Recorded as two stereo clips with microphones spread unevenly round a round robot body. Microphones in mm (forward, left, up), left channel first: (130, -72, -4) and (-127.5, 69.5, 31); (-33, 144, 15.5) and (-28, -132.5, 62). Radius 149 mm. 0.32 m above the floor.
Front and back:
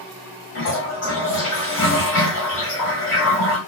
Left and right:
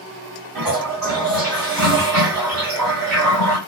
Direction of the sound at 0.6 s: 35° right.